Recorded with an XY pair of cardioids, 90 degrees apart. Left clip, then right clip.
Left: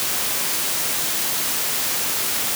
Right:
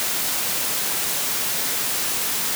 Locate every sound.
Only background noise.